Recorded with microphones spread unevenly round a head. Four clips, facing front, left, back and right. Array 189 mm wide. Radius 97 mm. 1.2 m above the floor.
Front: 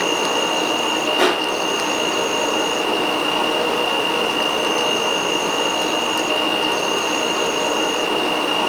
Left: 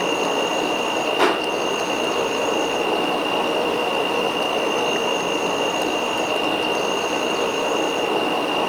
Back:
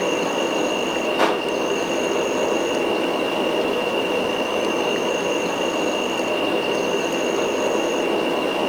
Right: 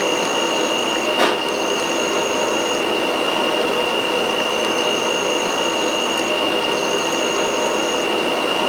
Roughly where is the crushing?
Right.